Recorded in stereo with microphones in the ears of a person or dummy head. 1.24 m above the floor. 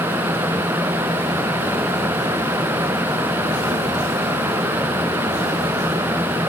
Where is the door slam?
No door slam in this recording.